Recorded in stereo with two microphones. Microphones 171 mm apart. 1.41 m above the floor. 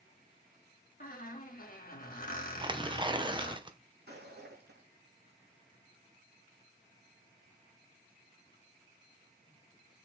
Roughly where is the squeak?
Left.